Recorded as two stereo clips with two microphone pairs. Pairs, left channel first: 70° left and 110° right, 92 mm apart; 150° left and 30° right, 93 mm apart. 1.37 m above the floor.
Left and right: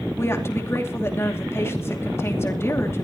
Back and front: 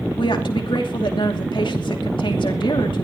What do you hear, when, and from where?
0.2 s a woman speaking: 130° left, 2.5 m